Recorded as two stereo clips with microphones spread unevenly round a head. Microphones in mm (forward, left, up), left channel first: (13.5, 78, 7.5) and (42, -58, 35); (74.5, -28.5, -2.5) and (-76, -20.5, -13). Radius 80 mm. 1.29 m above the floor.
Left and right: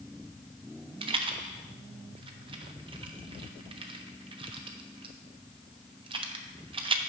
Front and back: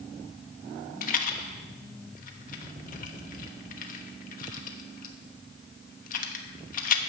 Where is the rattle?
30° right, 1.1 m.